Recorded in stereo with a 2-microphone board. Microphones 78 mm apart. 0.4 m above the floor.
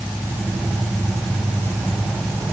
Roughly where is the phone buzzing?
No phone buzzing in this recording.